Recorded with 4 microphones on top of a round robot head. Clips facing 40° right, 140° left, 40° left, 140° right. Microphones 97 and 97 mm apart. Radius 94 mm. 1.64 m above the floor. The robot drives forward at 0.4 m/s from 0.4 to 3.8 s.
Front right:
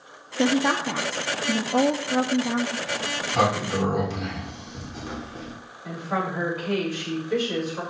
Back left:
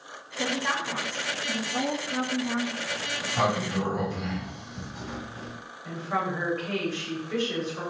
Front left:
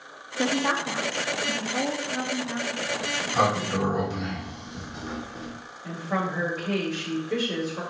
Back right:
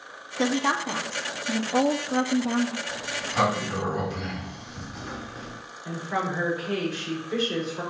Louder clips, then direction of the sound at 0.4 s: Front right 7 dB, back right 1 dB; 40° right.